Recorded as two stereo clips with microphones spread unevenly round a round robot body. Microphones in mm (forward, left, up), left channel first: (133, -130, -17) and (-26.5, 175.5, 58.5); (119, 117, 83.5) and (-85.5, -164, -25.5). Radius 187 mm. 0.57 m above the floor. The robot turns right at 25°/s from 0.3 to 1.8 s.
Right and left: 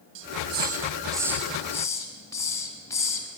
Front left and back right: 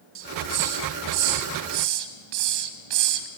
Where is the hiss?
Straight behind, 1.6 m; by 3.3 s 145° right, 1.6 m.